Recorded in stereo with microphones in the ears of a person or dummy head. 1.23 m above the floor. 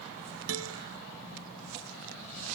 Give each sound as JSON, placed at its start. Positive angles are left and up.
{"t": 0.5, "sound": "a guitar", "side_deg": -80}